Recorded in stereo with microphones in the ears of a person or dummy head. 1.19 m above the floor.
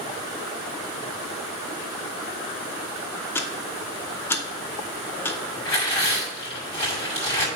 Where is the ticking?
10° left (ahead or behind), 0.6 m.